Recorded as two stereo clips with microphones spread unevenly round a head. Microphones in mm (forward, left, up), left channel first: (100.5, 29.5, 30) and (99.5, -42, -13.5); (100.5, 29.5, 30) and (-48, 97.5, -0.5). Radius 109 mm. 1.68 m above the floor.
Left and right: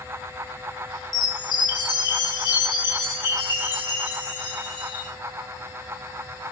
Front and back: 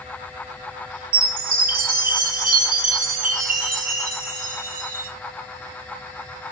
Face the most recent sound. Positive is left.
turn(degrees=115)